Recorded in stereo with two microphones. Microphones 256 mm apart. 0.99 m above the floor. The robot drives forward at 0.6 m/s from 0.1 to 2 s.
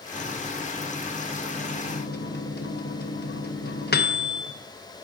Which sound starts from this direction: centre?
A microwave, at 0.1 s.